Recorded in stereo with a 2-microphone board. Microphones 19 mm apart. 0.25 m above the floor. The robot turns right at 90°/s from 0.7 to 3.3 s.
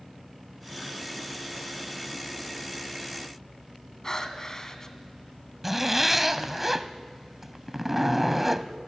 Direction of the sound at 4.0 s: 30° left (ahead or behind).